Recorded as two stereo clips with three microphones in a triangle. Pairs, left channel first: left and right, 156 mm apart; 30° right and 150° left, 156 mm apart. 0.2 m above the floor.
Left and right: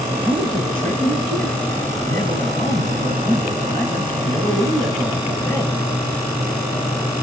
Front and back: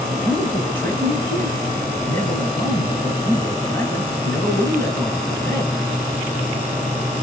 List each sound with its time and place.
0.2 s a man speaking: 105° right, 2.5 m